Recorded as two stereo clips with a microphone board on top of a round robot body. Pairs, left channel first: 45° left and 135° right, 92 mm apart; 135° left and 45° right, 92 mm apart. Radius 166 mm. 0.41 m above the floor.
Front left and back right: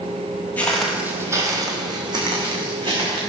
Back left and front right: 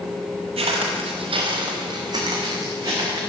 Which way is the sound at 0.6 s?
30° right.